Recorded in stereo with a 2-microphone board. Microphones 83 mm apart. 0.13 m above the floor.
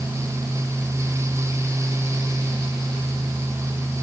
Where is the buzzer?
No buzzer in this recording.